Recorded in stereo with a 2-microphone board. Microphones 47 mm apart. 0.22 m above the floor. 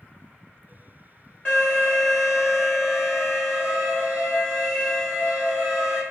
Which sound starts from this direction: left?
An alarm, at 1.4 s.